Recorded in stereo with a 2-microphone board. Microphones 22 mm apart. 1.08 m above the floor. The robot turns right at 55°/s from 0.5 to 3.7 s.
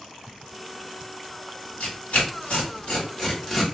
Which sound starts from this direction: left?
Tearing paper, at 1.8 s.